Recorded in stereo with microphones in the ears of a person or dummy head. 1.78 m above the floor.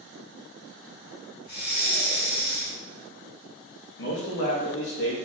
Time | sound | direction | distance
1.4 | breathing | 50° left (ahead or behind) | 1.0 m
4.0 | a man speaking | 65° left (ahead or behind) | 0.7 m